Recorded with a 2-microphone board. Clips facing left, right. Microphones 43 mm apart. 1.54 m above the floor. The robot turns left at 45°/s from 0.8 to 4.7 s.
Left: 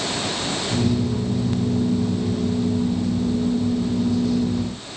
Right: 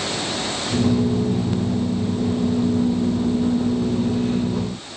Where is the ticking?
No ticking in this recording.